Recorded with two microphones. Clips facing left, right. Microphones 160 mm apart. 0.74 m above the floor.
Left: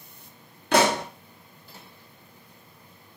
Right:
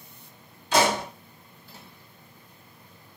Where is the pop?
65° left (ahead or behind), 0.8 m.